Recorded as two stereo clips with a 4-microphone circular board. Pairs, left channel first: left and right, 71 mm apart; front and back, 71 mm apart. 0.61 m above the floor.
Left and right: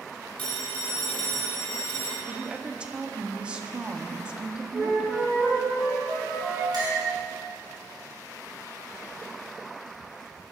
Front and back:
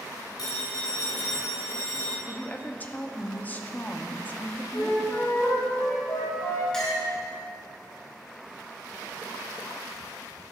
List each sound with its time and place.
0.4 s a phone ringing: 15° left, 3 m
2.3 s a woman speaking: 30° right, 0.6 m
4.7 s a flute: 20° right, 2.5 m
6.7 s a clink: 80° right, 2.5 m